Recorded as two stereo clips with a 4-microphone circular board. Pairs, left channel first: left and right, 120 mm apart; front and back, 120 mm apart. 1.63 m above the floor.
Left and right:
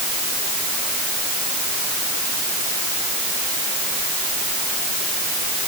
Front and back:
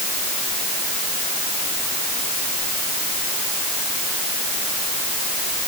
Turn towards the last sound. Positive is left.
No sound to turn to.